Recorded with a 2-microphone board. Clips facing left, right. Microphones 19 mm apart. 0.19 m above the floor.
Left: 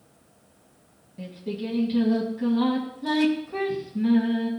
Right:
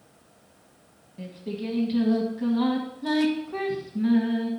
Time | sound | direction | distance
1.2 | singing | 5° right (ahead or behind) | 1.7 m